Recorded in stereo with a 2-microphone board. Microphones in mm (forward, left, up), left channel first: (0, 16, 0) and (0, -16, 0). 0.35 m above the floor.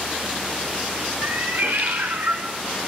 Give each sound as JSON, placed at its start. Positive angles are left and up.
{"t": 1.2, "sound": "a cat meowing", "side_deg": -80, "distance_m": 1.1}